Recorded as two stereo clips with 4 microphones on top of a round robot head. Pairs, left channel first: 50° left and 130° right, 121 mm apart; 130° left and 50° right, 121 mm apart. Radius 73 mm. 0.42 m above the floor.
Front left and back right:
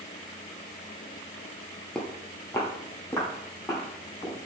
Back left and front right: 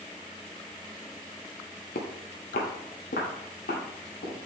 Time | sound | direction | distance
1.9 | footsteps | 135° left | 0.5 m